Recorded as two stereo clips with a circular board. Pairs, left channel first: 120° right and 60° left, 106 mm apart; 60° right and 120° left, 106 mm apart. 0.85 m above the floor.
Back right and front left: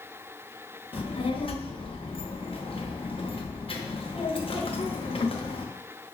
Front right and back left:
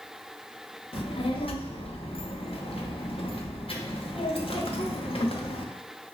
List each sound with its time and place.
0.9 s a child speaking: 90° right, 0.7 m